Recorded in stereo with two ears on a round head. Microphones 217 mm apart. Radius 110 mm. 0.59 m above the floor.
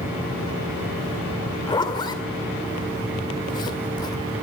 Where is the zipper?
20° left (ahead or behind), 2 m.